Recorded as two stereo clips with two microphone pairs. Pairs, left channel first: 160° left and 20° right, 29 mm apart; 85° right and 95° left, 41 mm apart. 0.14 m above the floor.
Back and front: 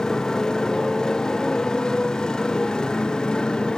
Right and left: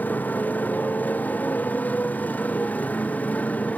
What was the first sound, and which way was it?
A motorcycle, 130° right.